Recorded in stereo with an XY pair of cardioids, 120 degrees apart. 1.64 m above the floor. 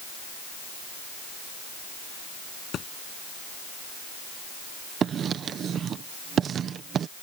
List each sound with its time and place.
2.7 s a thud: 50° left
5.0 s writing: 50° right